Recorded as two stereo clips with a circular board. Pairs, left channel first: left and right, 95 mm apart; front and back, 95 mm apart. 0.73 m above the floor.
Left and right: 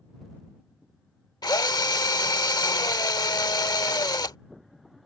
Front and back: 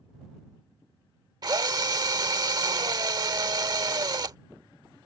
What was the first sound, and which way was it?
A drill, 135° left.